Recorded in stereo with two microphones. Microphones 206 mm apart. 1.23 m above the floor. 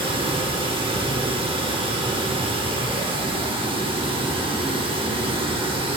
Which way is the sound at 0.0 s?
25° right (ahead or behind).